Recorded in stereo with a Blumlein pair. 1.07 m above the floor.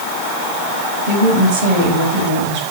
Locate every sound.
1.1 s a woman speaking: 50° right, 6 m